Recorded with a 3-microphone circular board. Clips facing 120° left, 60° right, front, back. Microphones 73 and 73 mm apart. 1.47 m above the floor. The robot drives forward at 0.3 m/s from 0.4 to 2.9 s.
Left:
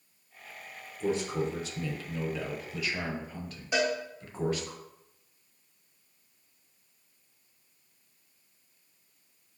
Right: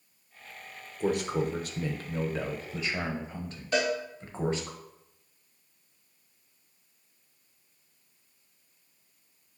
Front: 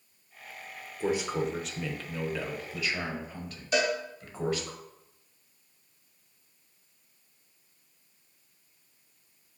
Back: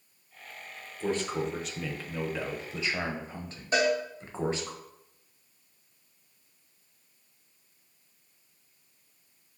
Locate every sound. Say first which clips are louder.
1.0 s a man speaking: right 2 dB, front 1 dB; 75° right, 0.8 m; by 4.7 s 120° right, 0.8 m
3.7 s a cowbell: right 1 dB, back 2 dB; straight behind, 1.2 m